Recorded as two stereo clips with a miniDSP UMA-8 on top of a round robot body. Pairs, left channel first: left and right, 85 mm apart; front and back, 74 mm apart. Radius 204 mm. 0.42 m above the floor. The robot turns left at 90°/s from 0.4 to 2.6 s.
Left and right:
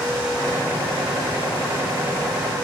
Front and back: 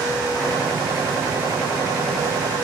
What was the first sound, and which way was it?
Only background noise.